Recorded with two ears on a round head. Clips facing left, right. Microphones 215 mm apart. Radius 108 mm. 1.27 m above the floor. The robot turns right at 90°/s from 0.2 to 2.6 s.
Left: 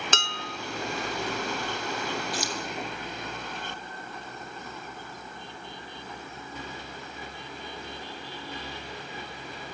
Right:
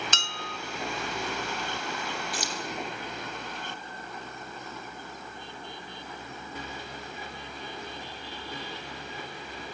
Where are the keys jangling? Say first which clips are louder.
Left 3 dB; 45° right (ahead or behind), 2 m; by 2.5 s 60° right (ahead or behind), 2 m.